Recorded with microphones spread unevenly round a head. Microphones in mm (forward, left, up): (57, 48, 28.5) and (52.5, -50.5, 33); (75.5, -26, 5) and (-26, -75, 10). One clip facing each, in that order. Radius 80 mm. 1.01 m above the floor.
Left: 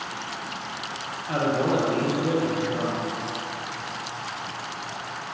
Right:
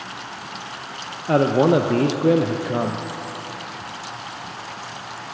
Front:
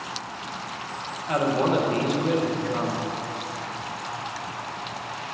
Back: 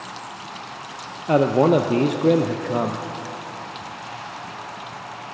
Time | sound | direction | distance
1.3 | a man speaking | 120° right | 0.6 m